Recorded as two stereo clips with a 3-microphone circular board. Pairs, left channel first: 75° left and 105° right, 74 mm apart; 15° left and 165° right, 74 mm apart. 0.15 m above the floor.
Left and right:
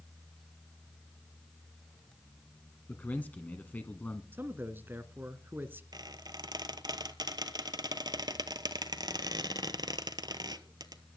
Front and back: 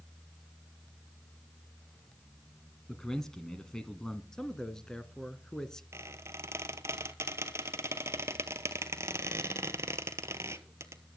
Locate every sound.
2.9 s a man speaking: 85° left, 1.2 m
4.3 s a man speaking: 60° right, 1.4 m
5.9 s a squeak: 115° right, 1.0 m